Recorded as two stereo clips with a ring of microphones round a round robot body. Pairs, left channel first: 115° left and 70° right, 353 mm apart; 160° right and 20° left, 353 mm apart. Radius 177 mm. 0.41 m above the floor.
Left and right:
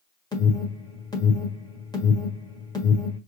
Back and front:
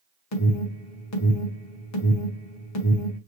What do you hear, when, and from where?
0.3 s an alarm: 170° right, 1.8 m